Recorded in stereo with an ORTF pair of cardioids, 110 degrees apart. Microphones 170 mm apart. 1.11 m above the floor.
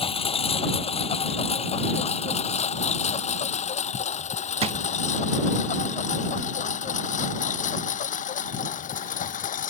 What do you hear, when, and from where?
0.0 s a lawn mower: 35° left; by 9.7 s 50° left
4.6 s a drawer: 40° right